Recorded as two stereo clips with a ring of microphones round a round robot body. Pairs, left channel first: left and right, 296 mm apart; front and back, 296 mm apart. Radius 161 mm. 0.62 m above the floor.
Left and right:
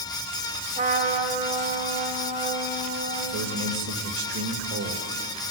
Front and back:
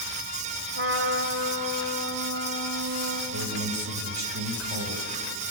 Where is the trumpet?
150° right, 2.5 m.